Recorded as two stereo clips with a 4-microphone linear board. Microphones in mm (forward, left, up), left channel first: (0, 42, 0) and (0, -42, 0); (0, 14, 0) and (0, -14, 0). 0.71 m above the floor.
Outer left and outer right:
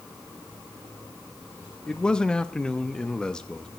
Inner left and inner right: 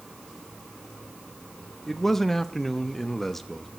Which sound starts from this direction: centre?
A man speaking, at 1.9 s.